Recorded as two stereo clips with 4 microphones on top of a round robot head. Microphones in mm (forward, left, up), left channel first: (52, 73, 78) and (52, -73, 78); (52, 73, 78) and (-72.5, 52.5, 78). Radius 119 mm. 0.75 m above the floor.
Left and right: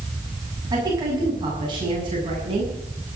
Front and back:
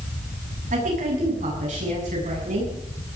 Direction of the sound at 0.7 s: 155° right.